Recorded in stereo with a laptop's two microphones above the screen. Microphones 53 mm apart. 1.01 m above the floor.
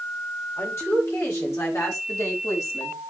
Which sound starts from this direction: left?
A woman speaking, at 0.6 s.